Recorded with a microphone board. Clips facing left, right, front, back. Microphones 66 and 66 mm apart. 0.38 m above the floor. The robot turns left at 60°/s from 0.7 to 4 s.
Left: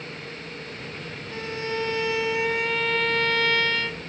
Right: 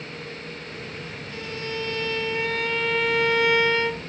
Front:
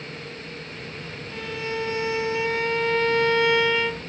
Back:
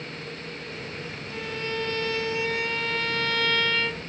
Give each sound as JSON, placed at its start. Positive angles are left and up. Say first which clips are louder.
{"t": 1.3, "sound": "a violin", "louder": "left 3 dB, front 2 dB", "azimuth_deg": 90, "distance_m": 1.2}